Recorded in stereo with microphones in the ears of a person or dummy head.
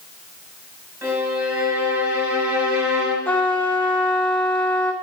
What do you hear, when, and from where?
1.0 s a violin: 10° right (ahead or behind), 5.5 m
3.2 s a trumpet: 10° left (ahead or behind), 0.7 m